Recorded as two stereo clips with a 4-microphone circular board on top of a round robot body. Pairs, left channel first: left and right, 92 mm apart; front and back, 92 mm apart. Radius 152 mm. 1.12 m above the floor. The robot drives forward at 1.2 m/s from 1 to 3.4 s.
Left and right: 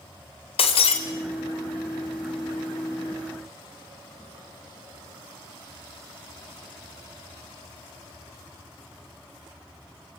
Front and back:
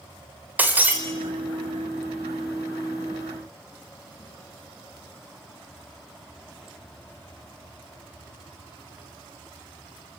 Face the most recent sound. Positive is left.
turn(degrees=155)